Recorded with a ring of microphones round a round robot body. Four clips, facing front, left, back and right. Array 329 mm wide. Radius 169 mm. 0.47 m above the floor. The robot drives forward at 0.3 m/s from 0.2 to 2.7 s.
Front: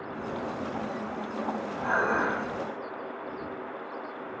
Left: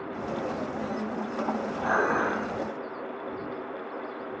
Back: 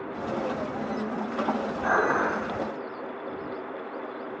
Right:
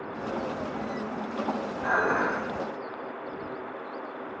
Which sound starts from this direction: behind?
Dishes clattering, at 1.8 s.